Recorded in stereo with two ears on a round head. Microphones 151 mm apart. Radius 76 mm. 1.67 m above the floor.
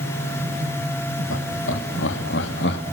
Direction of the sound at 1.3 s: 85° left.